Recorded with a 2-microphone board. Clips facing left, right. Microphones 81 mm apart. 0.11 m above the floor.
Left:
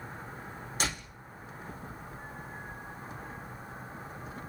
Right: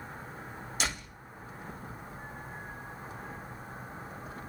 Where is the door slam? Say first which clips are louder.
Left 1 dB; 40° left (ahead or behind), 4 m.